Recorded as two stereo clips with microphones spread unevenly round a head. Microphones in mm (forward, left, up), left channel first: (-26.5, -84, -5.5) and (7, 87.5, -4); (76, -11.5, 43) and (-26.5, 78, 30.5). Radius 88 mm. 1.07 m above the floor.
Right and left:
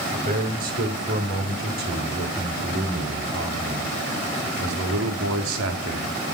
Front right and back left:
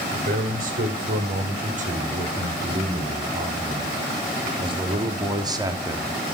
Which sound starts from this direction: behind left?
A man speaking, at 0.1 s.